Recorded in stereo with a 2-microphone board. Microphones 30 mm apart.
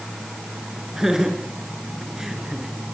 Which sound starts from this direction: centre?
Laughter, at 1.0 s.